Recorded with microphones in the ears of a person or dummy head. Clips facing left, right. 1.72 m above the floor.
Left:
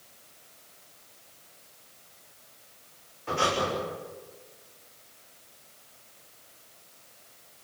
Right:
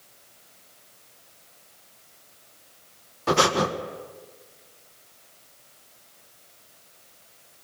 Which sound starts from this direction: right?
Breathing, at 3.3 s.